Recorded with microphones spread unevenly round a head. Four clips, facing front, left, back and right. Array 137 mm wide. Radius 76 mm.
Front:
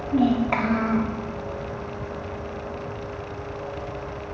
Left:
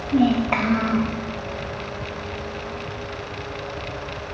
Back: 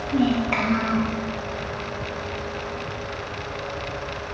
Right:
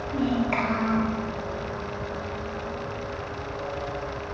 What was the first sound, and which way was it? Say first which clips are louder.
A child speaking: left 6 dB, front 1 dB; 70° left.